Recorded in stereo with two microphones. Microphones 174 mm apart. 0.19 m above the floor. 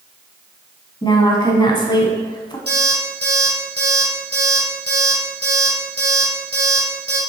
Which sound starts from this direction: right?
An alarm clock, at 2.7 s.